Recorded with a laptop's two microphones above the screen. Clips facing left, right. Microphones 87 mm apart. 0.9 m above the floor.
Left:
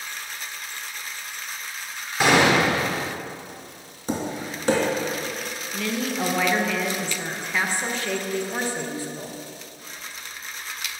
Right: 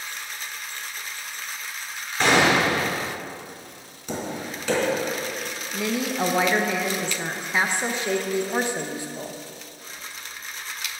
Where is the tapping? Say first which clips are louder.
Left 2 dB; 40° left (ahead or behind), 3 m.